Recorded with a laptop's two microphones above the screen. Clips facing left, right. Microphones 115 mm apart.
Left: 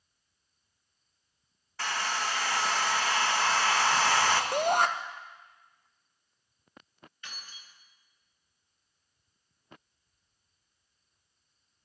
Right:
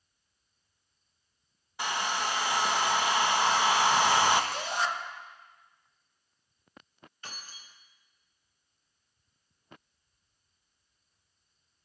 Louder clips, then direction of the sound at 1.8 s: Right 1 dB; 15° right (ahead or behind).